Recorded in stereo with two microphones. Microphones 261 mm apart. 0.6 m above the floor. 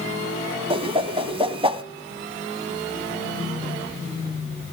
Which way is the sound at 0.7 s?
20° right (ahead or behind).